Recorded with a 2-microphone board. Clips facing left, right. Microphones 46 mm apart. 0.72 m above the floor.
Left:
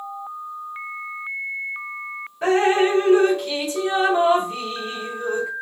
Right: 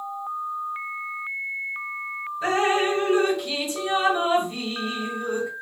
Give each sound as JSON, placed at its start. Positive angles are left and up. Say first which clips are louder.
{"t": 2.4, "sound": "dripping", "louder": "left 4 dB", "side_deg": 45, "distance_m": 1.4}